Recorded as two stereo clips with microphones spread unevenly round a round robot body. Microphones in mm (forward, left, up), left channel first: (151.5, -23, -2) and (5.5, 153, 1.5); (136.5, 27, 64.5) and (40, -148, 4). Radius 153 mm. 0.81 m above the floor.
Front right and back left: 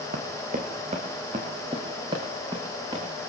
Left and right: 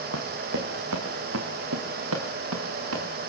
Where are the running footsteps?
175° right, 1.7 m; by 3.0 s 150° right, 4.5 m.